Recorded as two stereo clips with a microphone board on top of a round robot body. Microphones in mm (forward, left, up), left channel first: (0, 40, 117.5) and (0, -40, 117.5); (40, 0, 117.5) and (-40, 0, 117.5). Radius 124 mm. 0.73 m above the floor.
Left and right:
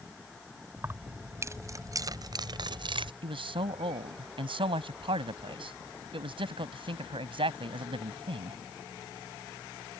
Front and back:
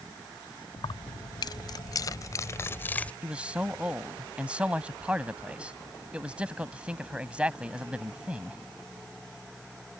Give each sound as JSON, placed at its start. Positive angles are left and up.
{"t": 0.8, "sound": "keys jangling", "azimuth_deg": -25}
{"t": 3.2, "sound": "a man speaking", "azimuth_deg": -100}